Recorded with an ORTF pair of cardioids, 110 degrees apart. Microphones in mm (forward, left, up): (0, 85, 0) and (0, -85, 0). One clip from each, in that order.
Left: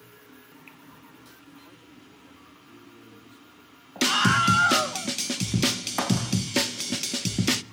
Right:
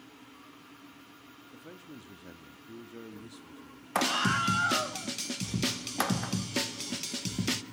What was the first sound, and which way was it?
A man speaking, 50° right.